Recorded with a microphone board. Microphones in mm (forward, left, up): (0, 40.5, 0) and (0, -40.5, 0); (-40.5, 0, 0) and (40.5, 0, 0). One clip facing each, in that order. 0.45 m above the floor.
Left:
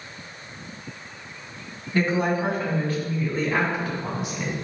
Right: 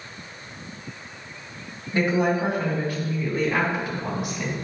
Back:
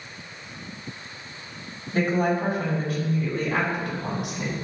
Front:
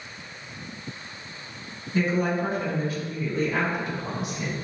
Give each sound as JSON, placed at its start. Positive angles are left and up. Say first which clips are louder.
{"t": 1.9, "sound": "a woman speaking", "louder": "right 1 dB, back 2 dB", "azimuth_deg": -160, "distance_m": 2.5}